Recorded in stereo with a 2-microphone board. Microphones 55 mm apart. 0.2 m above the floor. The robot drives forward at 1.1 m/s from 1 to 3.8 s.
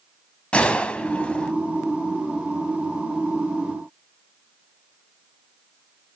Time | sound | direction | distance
0.5 | a gunshot | 20° left (ahead or behind) | 0.7 m